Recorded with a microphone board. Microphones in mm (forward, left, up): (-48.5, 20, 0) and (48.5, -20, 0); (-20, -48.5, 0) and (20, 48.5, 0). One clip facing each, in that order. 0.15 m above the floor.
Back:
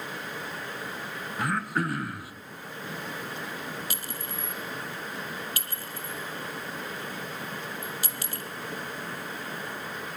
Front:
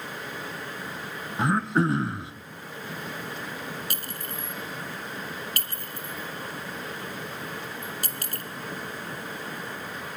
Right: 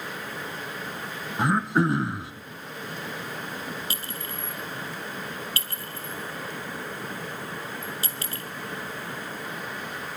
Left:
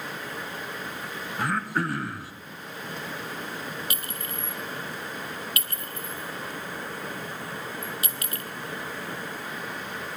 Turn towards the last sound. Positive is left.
turn(degrees=-55)